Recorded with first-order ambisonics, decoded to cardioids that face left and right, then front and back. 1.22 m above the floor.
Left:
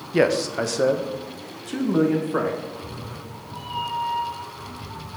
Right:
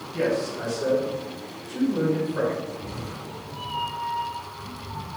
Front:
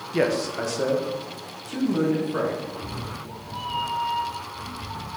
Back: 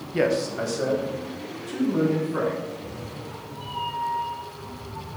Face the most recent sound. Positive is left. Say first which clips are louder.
# even, front 2 dB
turn(degrees=0)